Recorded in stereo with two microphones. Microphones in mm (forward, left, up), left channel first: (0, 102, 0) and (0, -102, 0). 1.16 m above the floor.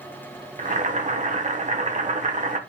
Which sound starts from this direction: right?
Boiling, at 0.6 s.